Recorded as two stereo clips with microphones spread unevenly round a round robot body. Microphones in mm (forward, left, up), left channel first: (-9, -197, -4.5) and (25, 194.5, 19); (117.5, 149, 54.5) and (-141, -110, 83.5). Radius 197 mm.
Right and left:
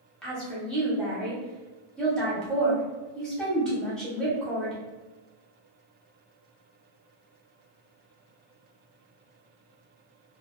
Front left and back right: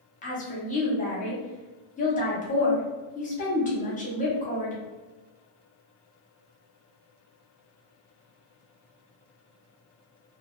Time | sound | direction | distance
0.2 | a woman speaking | 10° right | 0.9 m